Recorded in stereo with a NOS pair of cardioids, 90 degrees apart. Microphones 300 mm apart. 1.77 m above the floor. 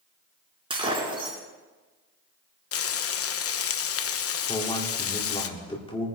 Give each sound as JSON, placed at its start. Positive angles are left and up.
{"t": 0.7, "sound": "breaking glass", "azimuth_deg": -20, "distance_m": 5.0}
{"t": 2.7, "sound": "frying", "azimuth_deg": 50, "distance_m": 0.9}
{"t": 4.5, "sound": "a man speaking", "azimuth_deg": 15, "distance_m": 4.5}